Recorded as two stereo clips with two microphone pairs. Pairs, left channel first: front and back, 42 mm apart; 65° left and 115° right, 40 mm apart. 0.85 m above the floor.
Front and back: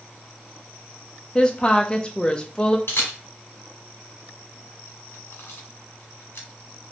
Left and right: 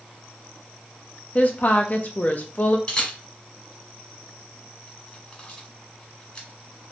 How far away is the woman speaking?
About 0.5 m.